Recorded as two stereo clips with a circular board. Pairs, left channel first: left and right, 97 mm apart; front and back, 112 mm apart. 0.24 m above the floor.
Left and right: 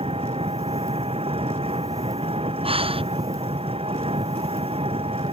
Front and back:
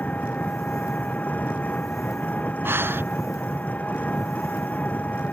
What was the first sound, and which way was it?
An engine running, 75° right.